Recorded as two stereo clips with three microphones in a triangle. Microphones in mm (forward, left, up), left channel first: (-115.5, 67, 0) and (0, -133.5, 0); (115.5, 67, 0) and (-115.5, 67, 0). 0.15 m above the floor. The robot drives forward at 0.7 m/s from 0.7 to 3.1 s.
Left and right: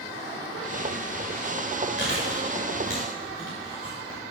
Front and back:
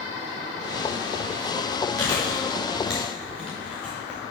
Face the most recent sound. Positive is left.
turn(degrees=85)